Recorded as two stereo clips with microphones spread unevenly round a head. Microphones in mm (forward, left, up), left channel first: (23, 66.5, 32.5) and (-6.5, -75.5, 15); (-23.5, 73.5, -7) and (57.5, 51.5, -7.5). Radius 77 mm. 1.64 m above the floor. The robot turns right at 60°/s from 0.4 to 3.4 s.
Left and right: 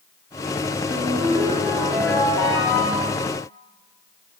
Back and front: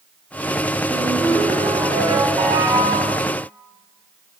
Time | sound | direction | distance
0.9 | a ringtone | 85° right | 8 m